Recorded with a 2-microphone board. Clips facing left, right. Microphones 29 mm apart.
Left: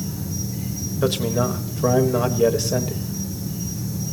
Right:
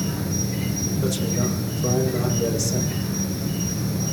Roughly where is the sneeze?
I don't hear a sneeze.